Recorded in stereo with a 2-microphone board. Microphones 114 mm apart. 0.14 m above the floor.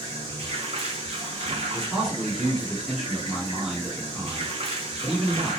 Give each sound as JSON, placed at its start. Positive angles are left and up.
{"t": 0.0, "sound": "running water", "side_deg": -55, "distance_m": 0.8}
{"t": 1.7, "sound": "a man speaking", "side_deg": 0, "distance_m": 1.9}